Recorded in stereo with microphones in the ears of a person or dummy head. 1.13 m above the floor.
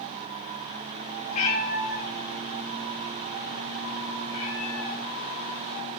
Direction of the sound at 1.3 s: 45° left (ahead or behind).